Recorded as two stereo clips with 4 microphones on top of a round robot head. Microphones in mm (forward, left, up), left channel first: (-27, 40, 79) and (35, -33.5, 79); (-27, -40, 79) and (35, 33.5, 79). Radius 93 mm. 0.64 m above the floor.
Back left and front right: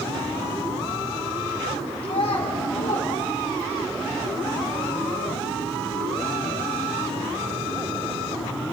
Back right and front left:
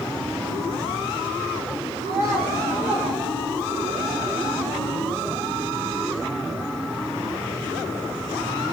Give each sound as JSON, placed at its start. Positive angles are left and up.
{"t": 2.0, "sound": "a child speaking", "azimuth_deg": 100, "distance_m": 4.0}